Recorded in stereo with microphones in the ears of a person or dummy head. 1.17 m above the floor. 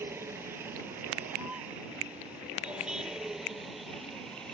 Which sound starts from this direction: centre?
A vehicle, at 0.0 s.